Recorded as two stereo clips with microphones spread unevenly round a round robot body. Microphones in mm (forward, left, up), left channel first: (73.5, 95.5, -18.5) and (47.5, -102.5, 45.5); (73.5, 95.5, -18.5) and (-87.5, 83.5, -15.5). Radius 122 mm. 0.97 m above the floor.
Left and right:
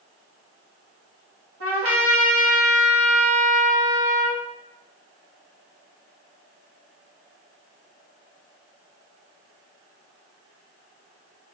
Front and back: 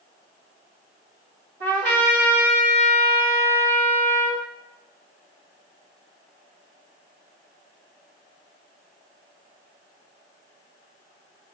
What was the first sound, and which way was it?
A trumpet, 140° right.